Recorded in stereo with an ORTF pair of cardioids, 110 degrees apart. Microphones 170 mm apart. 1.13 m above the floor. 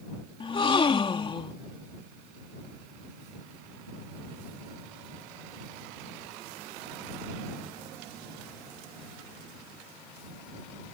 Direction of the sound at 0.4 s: 30° left.